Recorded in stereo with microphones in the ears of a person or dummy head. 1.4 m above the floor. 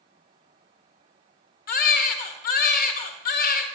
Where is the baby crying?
45° left (ahead or behind), 1.2 m.